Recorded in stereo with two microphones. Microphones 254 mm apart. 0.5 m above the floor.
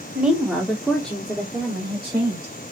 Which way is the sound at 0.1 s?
5° right (ahead or behind).